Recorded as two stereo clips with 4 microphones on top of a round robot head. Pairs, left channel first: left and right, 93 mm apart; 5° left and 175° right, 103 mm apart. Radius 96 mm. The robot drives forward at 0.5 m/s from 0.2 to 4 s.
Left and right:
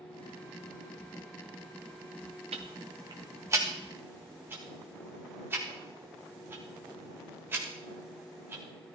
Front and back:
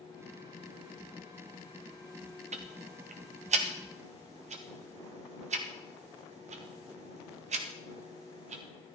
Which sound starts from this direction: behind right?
Ticking, at 2.5 s.